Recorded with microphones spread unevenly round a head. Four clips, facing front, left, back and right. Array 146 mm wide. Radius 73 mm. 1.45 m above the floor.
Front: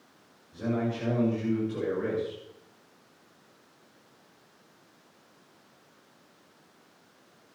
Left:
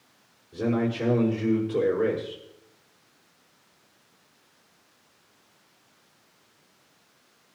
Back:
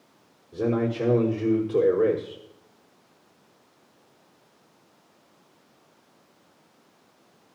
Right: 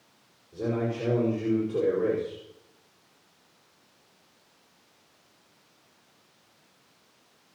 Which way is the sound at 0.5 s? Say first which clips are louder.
Left 3 dB, back 5 dB; 170° left.